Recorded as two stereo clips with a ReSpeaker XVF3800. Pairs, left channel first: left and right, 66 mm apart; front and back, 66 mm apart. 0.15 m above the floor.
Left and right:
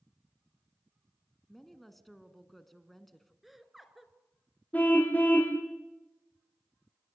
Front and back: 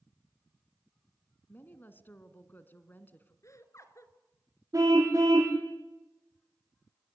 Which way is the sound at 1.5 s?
5° left.